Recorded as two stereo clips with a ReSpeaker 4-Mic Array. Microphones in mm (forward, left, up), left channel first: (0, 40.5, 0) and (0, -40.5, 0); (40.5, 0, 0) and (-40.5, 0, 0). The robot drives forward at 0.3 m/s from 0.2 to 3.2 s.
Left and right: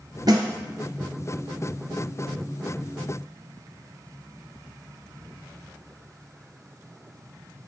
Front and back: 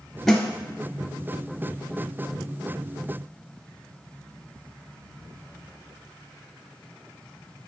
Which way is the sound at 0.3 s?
80° right.